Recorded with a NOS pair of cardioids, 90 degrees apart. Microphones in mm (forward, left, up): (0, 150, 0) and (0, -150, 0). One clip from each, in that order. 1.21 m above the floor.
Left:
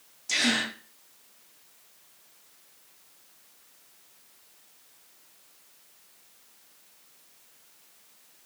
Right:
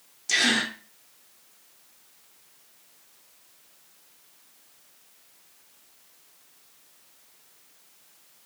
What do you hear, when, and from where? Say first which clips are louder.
0.3 s a gasp: right 3 dB; 20° right, 0.9 m